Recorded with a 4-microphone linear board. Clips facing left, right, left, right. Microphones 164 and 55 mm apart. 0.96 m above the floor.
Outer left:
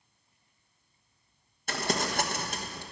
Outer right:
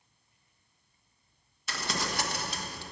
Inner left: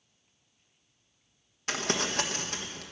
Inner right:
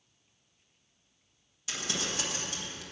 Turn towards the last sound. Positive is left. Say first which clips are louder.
# outer left 4 dB, inner left 5 dB
turn(degrees=50)  # may be behind; listen again after turning